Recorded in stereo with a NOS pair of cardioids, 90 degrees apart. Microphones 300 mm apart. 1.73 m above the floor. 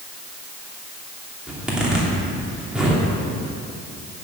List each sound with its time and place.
1.5 s a zipper: 5° right, 3 m